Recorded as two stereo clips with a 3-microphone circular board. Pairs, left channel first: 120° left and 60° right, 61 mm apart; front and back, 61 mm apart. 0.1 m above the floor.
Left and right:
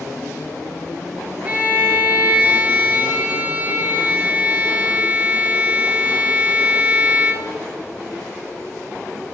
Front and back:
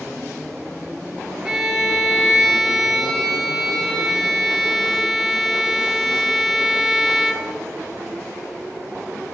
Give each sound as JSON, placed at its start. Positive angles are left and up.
{"t": 1.4, "sound": "a violin", "azimuth_deg": -105, "distance_m": 1.2}